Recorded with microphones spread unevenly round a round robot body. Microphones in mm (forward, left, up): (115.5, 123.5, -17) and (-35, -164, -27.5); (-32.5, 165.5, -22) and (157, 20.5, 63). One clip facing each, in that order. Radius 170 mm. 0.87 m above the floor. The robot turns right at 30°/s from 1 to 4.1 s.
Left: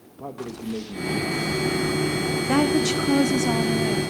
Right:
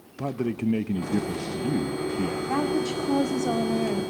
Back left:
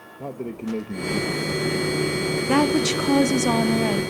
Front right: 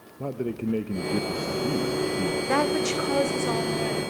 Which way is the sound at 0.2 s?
135° right.